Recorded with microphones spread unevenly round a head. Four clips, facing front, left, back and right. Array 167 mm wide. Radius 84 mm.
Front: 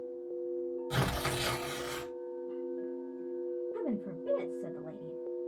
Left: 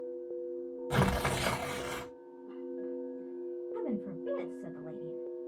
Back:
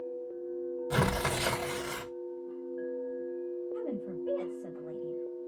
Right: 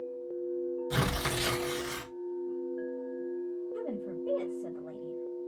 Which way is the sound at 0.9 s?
145° left.